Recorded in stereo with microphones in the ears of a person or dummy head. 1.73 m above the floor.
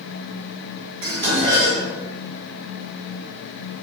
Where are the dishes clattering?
30° right (ahead or behind), 1.4 m.